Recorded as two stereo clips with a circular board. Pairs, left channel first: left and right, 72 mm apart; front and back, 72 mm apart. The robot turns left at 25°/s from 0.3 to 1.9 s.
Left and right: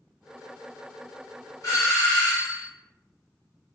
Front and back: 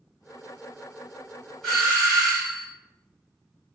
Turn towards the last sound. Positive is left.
turn(degrees=75)